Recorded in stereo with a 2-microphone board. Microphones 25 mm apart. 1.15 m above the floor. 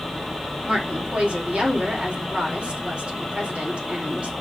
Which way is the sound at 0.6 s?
50° right (ahead or behind).